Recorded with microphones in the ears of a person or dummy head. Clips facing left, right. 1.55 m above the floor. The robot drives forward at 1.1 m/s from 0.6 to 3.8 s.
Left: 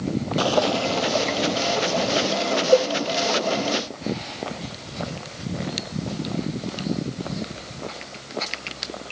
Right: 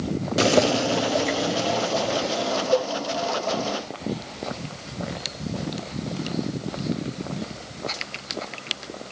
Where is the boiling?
25° right (ahead or behind), 0.5 m; by 2.6 s 5° right (ahead or behind), 2.5 m.